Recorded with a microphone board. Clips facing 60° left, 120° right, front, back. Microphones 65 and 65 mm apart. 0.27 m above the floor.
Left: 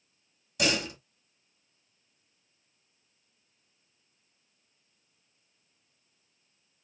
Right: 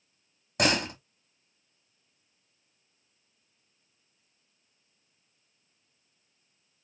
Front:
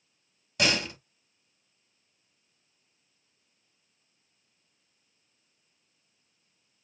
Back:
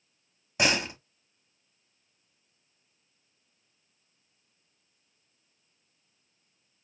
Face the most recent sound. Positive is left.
turn(degrees=-120)